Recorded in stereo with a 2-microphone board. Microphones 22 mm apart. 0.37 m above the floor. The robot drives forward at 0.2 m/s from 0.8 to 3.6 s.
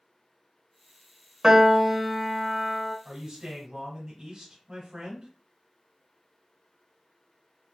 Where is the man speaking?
35° right (ahead or behind), 1.4 m.